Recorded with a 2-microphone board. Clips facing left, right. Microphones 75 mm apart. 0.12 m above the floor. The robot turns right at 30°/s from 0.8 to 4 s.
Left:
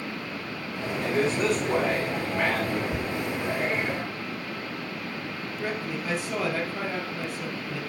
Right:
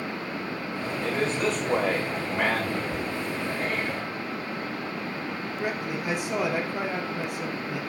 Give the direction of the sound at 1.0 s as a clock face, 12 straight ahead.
7 o'clock.